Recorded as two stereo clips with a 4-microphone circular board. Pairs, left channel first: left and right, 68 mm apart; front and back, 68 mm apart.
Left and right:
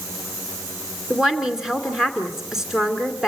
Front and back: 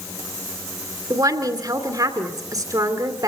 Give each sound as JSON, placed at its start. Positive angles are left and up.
{"t": 1.1, "sound": "a woman speaking", "azimuth_deg": -170, "distance_m": 2.5}